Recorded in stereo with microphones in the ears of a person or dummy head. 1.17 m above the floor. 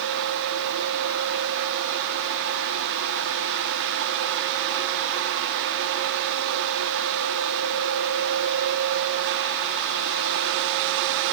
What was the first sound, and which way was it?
Only background noise.